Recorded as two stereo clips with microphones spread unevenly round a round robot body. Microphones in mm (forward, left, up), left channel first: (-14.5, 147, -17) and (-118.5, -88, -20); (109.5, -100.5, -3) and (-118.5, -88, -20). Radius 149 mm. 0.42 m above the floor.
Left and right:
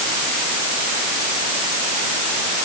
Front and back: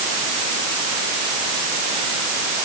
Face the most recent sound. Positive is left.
No sound to turn to.